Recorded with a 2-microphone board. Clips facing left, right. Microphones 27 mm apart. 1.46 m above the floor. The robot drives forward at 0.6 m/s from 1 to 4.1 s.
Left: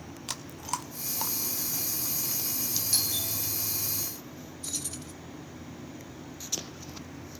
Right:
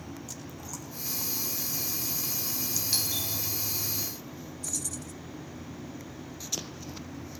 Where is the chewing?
70° left (ahead or behind), 1.0 m; by 2.8 s 45° left (ahead or behind), 1.3 m.